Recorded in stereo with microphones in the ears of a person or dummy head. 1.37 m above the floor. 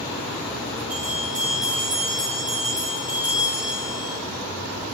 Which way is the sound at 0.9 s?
15° right (ahead or behind).